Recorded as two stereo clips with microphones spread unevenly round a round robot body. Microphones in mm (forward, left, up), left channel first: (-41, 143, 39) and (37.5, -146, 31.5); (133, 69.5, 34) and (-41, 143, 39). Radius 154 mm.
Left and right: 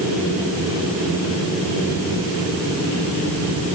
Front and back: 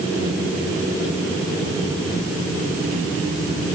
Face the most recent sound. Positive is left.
No sound to turn to.